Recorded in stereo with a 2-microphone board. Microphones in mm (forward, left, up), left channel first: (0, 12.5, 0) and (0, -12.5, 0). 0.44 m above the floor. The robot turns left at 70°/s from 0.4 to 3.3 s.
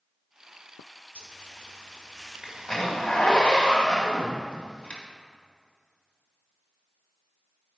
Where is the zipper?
65° right (ahead or behind), 2 m; by 5.0 s 60° left (ahead or behind), 2 m.